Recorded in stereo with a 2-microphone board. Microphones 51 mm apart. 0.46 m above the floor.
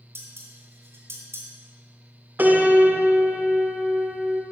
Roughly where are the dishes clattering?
Right.